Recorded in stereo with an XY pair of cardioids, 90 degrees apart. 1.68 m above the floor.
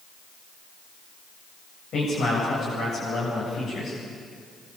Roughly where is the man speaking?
Ahead left.